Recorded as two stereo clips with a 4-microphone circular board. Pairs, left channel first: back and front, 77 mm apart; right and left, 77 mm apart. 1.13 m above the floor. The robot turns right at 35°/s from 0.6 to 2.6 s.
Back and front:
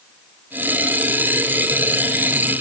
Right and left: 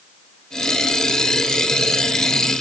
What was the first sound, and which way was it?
Only background noise.